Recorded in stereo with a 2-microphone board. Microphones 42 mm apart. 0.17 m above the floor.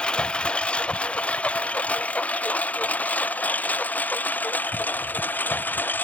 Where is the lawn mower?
25° left (ahead or behind); by 6.0 s 45° left (ahead or behind).